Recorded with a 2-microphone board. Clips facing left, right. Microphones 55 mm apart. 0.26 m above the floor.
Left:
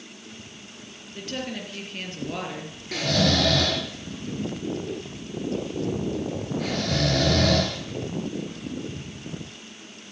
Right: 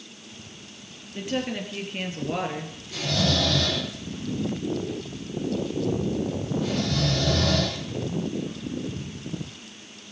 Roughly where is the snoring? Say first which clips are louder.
Left 3 dB; left.